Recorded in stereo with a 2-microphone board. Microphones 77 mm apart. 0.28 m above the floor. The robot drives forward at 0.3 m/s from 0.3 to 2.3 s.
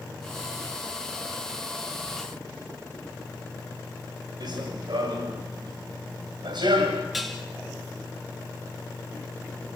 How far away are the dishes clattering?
About 2.5 m.